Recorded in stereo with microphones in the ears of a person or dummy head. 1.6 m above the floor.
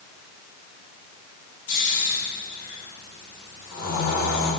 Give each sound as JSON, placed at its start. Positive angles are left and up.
{"t": 1.7, "sound": "snoring", "side_deg": 50, "distance_m": 3.5}